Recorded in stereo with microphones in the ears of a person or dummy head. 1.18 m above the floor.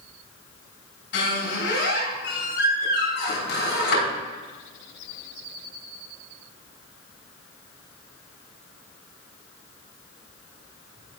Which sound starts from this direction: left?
A squeak, at 1.1 s.